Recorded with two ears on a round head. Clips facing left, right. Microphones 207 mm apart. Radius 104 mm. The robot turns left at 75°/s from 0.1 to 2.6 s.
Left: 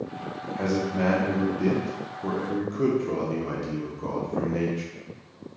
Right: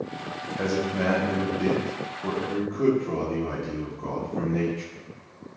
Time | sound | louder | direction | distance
0.6 | a man speaking | even | 20° right (ahead or behind) | 0.6 m